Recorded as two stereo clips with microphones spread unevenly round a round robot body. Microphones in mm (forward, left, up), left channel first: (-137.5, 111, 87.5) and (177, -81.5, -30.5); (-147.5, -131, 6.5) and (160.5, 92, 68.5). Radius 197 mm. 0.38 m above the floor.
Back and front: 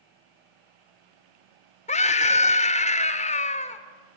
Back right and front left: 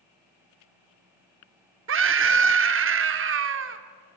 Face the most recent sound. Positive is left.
turn(degrees=55)